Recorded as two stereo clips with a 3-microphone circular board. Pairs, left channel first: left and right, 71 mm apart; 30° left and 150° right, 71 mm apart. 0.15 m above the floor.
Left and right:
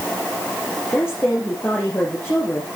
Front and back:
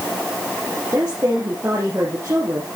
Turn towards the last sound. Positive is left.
turn(degrees=155)